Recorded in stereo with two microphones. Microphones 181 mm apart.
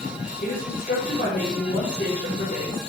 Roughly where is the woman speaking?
Left.